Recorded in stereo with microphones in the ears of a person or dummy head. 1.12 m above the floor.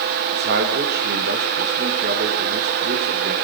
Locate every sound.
0.3 s a man speaking: 50° right (ahead or behind), 1.4 m